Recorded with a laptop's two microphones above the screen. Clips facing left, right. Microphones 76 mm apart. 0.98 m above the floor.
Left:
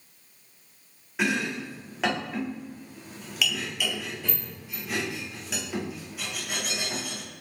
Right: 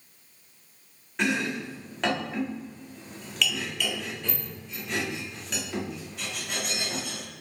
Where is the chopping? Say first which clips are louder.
Even; 5° left (ahead or behind), 1.3 m.